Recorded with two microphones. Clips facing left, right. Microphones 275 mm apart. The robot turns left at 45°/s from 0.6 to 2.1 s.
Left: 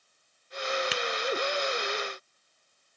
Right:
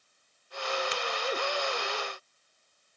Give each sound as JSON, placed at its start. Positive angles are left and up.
{"t": 0.9, "sound": "tapping", "side_deg": 75, "distance_m": 0.6}